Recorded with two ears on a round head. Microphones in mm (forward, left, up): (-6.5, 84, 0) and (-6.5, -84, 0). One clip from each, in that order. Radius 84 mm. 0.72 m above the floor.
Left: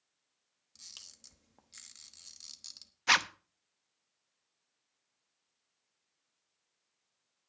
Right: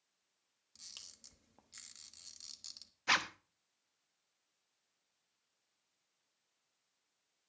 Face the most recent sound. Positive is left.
turn(degrees=25)  # may be behind; listen again after turning